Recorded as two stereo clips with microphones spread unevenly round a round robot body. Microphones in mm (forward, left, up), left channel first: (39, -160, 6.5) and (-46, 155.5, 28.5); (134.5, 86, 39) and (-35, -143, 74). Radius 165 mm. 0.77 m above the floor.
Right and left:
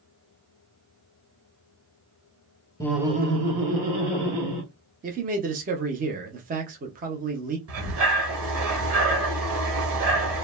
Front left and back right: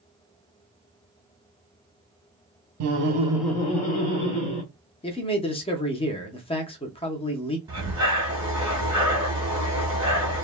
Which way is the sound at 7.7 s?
160° left.